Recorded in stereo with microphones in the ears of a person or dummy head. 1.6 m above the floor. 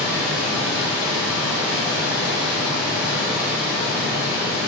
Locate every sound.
0.0 s a machine running: centre (ahead or behind), 1.8 m